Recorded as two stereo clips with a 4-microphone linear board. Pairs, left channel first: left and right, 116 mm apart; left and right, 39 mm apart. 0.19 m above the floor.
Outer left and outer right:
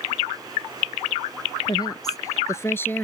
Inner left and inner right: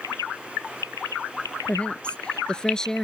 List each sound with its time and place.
1.6 s a woman speaking: 35° left (ahead or behind); by 3.0 s 15° left (ahead or behind)